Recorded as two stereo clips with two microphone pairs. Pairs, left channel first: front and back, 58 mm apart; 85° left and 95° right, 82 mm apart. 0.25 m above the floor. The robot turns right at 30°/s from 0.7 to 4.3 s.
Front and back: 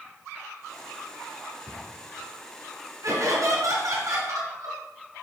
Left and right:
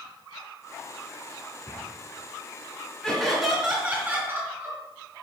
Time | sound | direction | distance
1.7 | a cupboard door | 150° right | 2 m
3.0 | laughter | 175° left | 2 m